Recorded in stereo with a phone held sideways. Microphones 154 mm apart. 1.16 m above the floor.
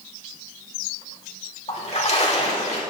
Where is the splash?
45° left (ahead or behind), 1.7 m.